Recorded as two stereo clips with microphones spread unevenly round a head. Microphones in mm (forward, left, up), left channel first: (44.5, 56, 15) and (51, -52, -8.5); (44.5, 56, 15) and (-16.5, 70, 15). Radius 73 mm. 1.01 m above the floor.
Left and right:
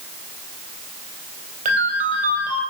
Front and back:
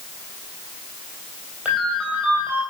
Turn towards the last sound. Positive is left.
turn(degrees=-110)